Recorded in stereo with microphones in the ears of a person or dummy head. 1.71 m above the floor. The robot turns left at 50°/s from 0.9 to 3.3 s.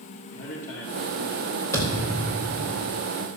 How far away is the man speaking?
About 2.5 m.